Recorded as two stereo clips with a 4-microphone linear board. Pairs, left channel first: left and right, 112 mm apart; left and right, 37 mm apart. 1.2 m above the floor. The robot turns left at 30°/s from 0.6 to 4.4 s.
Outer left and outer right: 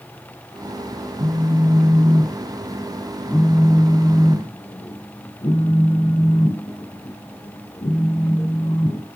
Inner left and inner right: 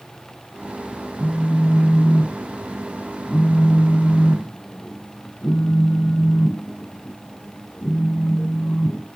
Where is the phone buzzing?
130° right, 3.5 m; by 9.1 s 135° left, 3.5 m.